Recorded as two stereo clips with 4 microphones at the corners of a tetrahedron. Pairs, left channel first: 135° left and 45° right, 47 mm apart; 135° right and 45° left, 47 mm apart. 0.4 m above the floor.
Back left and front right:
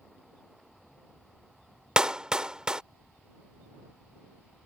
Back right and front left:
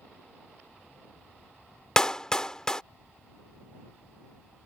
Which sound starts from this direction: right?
A clap, at 2.0 s.